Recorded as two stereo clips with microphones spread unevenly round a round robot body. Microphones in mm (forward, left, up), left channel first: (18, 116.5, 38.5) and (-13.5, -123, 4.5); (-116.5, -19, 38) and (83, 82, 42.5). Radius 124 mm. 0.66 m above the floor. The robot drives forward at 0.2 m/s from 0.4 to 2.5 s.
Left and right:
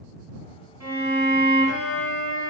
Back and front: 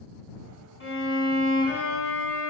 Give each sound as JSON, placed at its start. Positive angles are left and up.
{"t": 0.8, "sound": "a violin", "azimuth_deg": -175, "distance_m": 1.5}